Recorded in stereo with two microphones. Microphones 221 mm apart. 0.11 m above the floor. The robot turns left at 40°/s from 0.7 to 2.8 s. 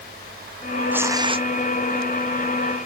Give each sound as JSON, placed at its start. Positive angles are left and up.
{"t": 0.9, "sound": "tearing paper", "side_deg": -5}